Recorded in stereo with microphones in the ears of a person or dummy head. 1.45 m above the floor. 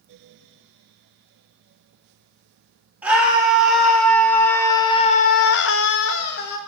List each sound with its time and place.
3.0 s a scream: 5° right (ahead or behind), 1.6 m; by 6.6 s 55° left (ahead or behind), 0.8 m